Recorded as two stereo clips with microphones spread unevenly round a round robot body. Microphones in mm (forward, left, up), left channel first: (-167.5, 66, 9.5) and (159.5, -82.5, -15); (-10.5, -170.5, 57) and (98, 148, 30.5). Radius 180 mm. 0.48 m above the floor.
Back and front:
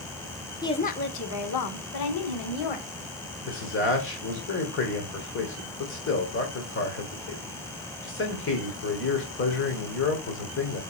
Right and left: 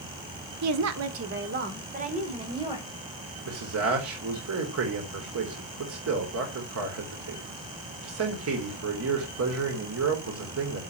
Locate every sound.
0.6 s a woman speaking: 75° left, 1.1 m; by 2.9 s 150° left, 2 m
3.5 s a man speaking: 100° left, 2 m